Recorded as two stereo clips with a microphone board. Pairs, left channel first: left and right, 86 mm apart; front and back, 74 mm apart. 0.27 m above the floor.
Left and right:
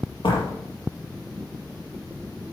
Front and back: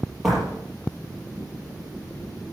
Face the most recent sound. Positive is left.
turn(degrees=90)